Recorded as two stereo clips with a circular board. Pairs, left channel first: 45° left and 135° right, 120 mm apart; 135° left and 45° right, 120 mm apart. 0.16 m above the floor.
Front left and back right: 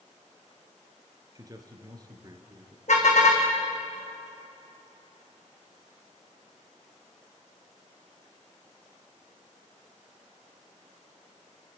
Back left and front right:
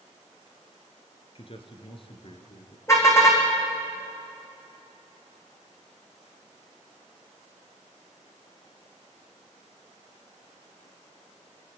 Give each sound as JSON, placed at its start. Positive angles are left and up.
{"t": 1.4, "sound": "a man speaking", "azimuth_deg": 170, "distance_m": 2.5}
{"t": 2.9, "sound": "a car horn", "azimuth_deg": 70, "distance_m": 5.0}